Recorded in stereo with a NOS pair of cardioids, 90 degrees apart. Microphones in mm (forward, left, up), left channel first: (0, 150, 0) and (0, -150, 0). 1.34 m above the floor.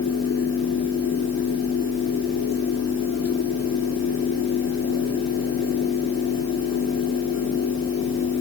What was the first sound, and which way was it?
A fan, 65° left.